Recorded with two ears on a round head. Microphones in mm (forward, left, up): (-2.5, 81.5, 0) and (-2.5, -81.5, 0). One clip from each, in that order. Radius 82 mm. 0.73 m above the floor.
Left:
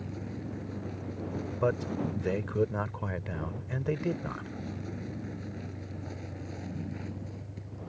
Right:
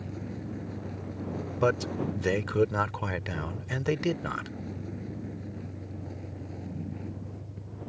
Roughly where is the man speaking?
Right.